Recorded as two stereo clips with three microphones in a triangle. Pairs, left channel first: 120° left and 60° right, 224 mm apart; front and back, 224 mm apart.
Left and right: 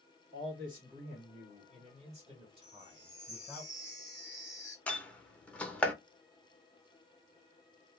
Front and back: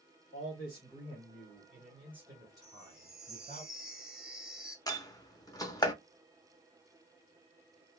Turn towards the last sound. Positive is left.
turn(degrees=45)